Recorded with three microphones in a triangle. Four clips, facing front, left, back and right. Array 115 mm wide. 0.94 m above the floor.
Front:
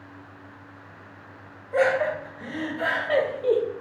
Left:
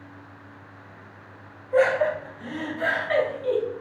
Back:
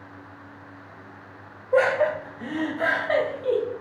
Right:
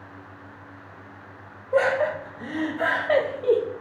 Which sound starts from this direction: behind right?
Laughter, at 1.7 s.